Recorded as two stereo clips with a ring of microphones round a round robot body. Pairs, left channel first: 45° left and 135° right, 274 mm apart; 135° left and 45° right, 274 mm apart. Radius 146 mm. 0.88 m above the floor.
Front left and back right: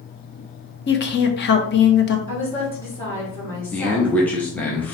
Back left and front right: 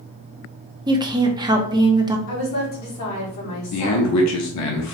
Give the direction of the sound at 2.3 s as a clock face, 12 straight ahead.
8 o'clock.